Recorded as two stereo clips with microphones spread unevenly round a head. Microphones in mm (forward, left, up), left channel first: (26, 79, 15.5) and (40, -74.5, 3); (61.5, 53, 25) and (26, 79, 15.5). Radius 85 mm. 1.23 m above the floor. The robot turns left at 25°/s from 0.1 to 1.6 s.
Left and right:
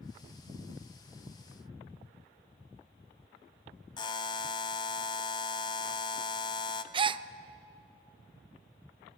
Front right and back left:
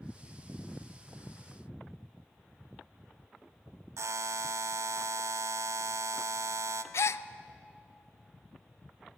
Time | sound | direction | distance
4.0 | a buzzer | 155° left | 0.7 m
6.9 | a gasp | 25° right | 0.6 m